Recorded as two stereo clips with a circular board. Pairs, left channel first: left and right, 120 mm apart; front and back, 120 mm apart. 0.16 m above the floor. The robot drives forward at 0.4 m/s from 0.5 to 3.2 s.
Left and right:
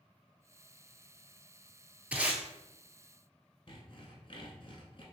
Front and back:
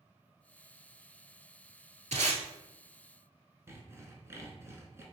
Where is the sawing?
120° left, 0.8 m.